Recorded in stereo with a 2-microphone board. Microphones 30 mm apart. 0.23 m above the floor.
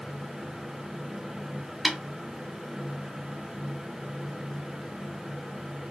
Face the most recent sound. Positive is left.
turn(degrees=5)  # may be behind; listen again after turning